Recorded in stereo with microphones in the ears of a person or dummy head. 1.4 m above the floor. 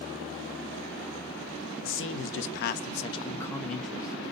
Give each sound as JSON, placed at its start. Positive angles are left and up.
{"t": 1.8, "sound": "a man speaking", "side_deg": 60, "distance_m": 0.8}